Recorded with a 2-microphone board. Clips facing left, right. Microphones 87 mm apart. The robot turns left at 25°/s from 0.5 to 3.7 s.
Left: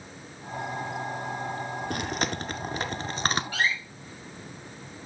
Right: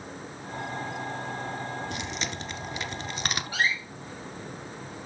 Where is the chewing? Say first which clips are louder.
Left 4 dB; 55° left (ahead or behind), 0.7 m; by 3.4 s 40° left (ahead or behind), 0.7 m.